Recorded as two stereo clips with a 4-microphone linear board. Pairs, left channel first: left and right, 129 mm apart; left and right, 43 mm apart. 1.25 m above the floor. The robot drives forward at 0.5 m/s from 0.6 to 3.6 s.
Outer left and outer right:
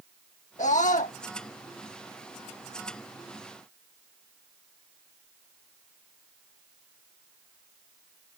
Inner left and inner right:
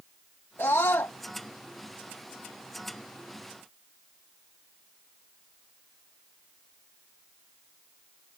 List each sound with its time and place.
0.6 s a scream: 70° left (ahead or behind); by 1.2 s 80° left